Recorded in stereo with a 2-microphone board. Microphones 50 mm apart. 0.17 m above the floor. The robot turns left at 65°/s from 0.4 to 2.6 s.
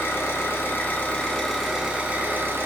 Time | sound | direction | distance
0.0 | an engine running | 75° left | 0.8 m